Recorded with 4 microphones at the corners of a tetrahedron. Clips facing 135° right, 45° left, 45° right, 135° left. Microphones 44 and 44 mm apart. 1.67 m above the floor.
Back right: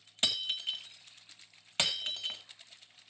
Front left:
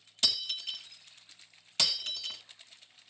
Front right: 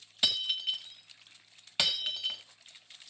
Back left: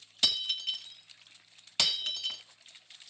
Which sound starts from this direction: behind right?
Breaking glass, at 0.2 s.